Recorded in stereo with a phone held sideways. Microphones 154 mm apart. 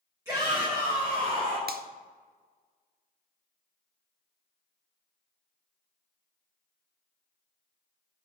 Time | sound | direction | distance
0.2 | a shout | 15° right (ahead or behind) | 5 m
1.7 | a finger snap | 85° right | 0.8 m